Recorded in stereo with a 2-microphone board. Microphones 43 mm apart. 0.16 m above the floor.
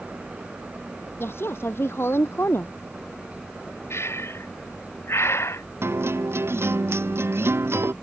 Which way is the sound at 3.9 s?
75° left (ahead or behind).